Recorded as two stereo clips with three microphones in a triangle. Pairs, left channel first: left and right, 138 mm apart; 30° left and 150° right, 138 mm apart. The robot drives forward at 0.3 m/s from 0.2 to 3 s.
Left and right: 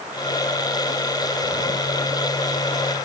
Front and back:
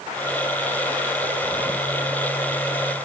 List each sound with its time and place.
Only background noise.